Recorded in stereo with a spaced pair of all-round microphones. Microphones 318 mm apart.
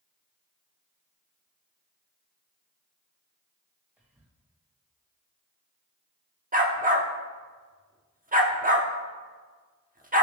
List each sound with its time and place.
4.0 s whispering: 5° right (ahead or behind), 2 m
6.5 s a dog barking: 25° right (ahead or behind), 1.1 m